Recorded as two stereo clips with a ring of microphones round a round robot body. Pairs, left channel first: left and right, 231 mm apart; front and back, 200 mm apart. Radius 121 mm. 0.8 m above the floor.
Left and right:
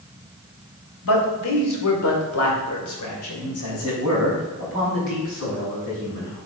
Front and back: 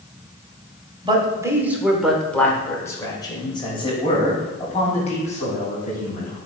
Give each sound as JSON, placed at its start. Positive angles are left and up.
{"t": 1.0, "sound": "a man speaking", "azimuth_deg": 115, "distance_m": 2.5}